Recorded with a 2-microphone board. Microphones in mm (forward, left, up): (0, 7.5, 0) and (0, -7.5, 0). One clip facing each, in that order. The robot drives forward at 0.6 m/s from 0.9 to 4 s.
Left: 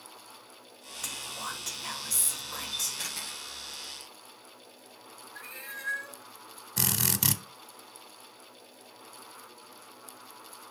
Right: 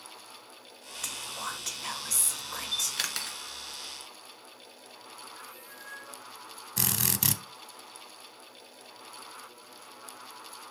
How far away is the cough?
I don't hear a cough.